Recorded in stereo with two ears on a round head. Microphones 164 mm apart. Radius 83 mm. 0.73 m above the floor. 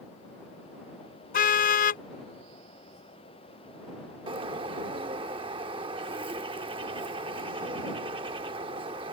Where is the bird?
25° right (ahead or behind).